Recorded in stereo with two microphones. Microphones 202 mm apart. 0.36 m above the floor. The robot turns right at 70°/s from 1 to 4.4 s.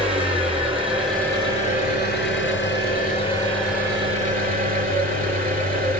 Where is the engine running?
5° right, 3 m; by 6.0 s 130° right, 3 m.